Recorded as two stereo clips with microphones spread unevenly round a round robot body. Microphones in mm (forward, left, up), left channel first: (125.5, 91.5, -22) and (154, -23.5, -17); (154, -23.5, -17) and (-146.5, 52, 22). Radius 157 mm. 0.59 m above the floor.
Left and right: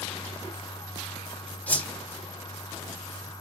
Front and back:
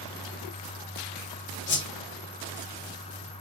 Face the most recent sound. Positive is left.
turn(degrees=30)